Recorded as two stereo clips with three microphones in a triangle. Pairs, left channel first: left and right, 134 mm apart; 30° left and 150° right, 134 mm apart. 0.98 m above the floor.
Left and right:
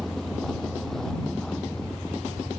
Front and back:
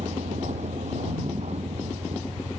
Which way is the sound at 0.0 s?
Straight behind.